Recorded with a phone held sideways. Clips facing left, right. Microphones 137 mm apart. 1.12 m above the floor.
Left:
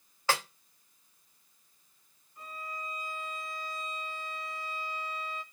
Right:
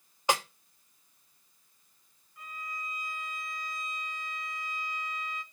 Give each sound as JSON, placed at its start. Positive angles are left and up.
{"t": 0.3, "sound": "a snare drum", "side_deg": -20, "distance_m": 1.2}
{"t": 2.4, "sound": "a violin", "side_deg": 30, "distance_m": 1.1}